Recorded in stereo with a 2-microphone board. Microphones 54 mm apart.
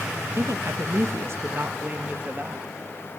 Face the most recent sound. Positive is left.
turn(degrees=-30)  # may be behind; listen again after turning